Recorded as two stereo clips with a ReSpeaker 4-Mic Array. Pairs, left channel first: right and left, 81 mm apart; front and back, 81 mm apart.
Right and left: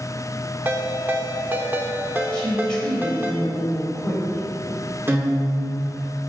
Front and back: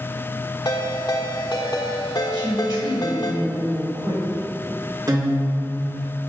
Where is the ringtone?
25° left, 1.1 m.